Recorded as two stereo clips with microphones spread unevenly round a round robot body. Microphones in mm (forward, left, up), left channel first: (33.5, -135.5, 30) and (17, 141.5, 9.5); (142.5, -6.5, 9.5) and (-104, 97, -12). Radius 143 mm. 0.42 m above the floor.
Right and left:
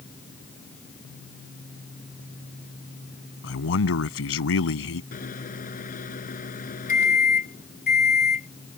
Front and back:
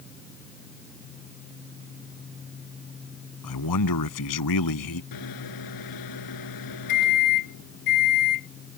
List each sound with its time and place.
3.4 s a man speaking: 45° right
5.1 s a microwave: 25° right